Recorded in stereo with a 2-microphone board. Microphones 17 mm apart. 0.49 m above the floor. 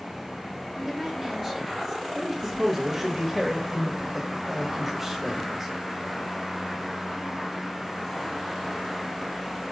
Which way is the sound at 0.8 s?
20° right (ahead or behind).